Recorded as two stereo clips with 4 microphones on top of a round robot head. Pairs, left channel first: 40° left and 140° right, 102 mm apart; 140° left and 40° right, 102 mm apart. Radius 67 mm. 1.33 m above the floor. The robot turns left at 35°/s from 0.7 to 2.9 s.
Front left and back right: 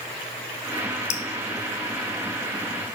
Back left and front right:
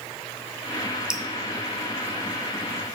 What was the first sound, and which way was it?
Dripping, 40° left.